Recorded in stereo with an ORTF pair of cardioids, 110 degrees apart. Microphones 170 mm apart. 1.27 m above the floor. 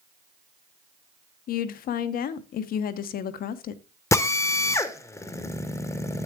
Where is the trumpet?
No trumpet in this recording.